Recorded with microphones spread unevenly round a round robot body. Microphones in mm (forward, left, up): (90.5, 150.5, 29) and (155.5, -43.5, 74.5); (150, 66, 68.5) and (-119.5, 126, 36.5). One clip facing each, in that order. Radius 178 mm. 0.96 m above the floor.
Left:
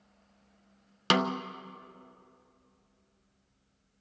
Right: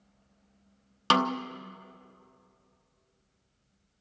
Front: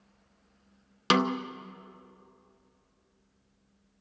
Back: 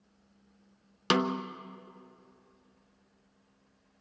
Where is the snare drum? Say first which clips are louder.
Even, front 2 dB; 85° left, 0.9 m.